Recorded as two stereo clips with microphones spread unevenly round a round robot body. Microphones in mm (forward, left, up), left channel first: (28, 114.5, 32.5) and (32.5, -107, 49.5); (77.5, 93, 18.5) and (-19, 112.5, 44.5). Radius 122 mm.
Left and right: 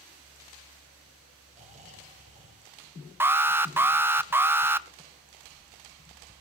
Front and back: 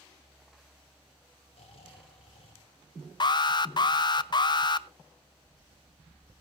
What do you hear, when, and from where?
1.5 s snoring: 30° right, 4 m
3.2 s an alarm: 5° right, 0.7 m